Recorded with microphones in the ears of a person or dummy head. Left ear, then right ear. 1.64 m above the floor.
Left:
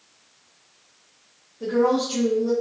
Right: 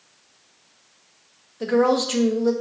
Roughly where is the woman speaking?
Right.